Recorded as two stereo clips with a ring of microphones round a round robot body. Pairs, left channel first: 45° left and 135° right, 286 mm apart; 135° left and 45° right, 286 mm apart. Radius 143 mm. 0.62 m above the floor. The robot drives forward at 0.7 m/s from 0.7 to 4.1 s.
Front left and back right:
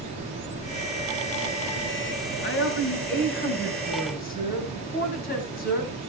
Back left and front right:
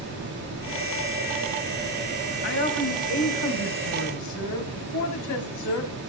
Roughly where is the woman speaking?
Left.